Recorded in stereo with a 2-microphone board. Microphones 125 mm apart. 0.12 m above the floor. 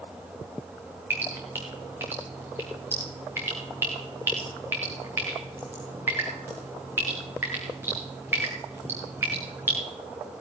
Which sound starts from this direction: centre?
Dripping, at 1.1 s.